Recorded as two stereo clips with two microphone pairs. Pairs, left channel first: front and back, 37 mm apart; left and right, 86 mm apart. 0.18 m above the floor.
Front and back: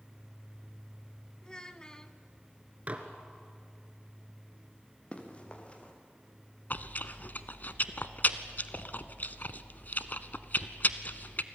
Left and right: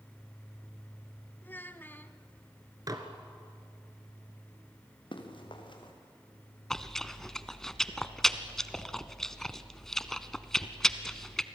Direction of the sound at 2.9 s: 130° right.